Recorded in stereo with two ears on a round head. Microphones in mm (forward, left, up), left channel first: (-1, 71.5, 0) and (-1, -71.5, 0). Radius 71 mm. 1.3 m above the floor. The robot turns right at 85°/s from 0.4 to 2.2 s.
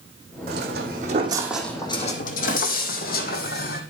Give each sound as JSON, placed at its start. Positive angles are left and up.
{"t": 0.5, "sound": "footsteps", "side_deg": -65, "distance_m": 3.5}